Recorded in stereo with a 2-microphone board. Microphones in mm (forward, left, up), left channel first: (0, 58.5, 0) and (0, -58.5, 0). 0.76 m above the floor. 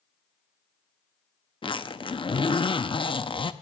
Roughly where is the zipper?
Left.